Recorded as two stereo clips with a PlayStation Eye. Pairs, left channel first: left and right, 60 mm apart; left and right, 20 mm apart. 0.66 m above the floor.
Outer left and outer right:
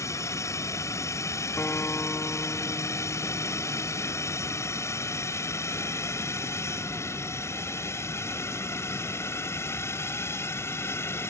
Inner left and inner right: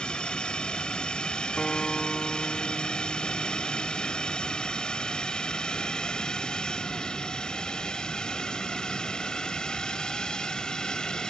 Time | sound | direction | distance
0.0 | a drone | 60° left (ahead or behind) | ?
1.6 | a guitar | 35° left (ahead or behind) | ?